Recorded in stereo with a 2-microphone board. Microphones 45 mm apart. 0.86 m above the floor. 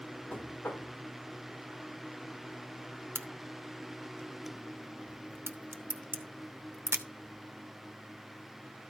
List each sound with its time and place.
0.3 s knocking: 60° left (ahead or behind), 1.9 m
3.1 s a crack: 65° right (ahead or behind), 0.8 m